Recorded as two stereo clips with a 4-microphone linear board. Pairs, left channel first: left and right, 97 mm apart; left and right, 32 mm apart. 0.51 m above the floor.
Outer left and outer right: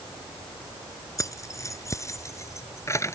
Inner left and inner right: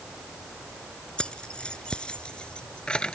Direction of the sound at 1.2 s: 35° left (ahead or behind).